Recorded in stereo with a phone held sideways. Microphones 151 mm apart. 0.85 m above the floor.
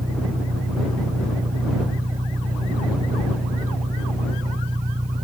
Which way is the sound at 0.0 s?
60° right (ahead or behind).